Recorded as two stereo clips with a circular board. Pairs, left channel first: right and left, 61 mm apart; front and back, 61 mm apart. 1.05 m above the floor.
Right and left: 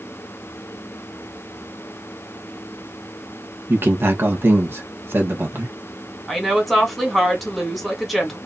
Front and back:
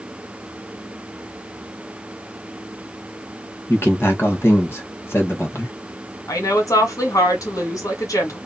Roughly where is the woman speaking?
Ahead.